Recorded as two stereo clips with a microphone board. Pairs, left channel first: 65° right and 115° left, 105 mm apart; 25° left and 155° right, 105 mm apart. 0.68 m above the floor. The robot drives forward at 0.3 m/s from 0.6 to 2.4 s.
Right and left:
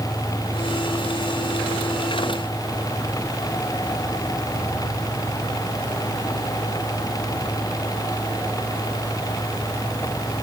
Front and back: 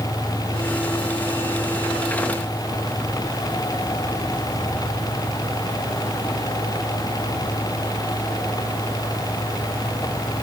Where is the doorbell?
No doorbell in this recording.